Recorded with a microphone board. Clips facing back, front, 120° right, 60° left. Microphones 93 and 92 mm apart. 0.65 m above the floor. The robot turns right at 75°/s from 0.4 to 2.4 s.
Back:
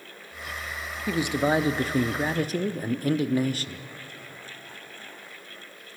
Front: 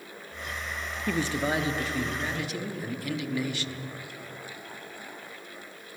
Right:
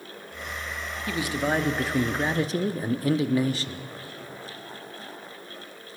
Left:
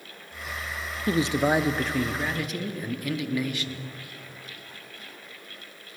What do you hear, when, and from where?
1.1 s a man speaking: 100° left, 0.8 m; by 3.8 s 160° right, 0.8 m